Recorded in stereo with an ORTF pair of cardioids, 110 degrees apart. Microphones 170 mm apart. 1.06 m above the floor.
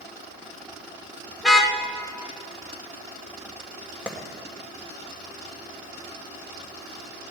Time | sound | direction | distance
1.4 | a car horn | straight ahead | 2 m
4.1 | a clap | 5° right | 2.5 m